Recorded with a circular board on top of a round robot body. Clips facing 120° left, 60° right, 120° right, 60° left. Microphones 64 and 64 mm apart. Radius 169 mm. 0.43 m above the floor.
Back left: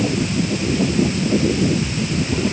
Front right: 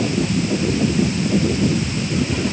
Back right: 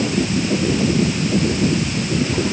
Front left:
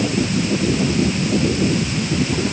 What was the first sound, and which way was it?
Only background noise.